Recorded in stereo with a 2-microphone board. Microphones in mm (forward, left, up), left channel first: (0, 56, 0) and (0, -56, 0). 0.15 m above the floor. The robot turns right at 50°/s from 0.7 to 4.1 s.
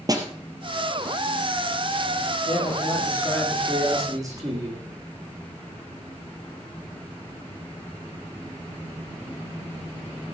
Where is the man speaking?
130° left, 7 m; by 4.8 s 150° right, 7 m.